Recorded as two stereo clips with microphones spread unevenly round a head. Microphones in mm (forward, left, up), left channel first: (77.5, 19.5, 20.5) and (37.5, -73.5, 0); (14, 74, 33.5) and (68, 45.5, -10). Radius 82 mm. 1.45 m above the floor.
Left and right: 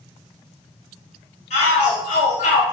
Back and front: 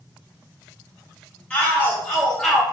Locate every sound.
1.5 s a shout: 65° left, 1.6 m; by 2.6 s 55° left, 0.5 m